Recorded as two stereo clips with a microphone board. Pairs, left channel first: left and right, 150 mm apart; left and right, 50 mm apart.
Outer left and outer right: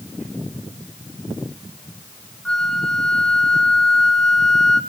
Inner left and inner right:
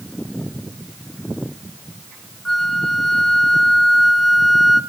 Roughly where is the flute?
Centre.